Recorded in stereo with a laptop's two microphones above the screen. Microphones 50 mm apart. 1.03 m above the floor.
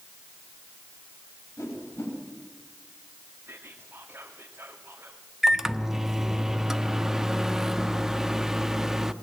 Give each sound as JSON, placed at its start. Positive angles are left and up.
{"t": 1.6, "sound": "a whoosh", "side_deg": 80, "distance_m": 8.0}
{"t": 3.5, "sound": "whispering", "side_deg": -50, "distance_m": 1.9}
{"t": 5.4, "sound": "a microwave", "side_deg": -5, "distance_m": 1.1}